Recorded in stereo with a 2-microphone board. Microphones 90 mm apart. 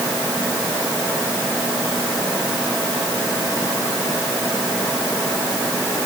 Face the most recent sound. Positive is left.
No sound to turn to.